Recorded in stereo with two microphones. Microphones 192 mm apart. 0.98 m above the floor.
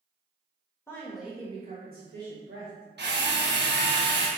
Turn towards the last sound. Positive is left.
turn(degrees=-70)  # may be behind; listen again after turning